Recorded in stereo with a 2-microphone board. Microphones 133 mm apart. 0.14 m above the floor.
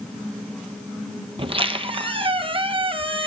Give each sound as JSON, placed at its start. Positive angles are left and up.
{"t": 1.4, "sound": "a squeak", "side_deg": -45, "distance_m": 0.7}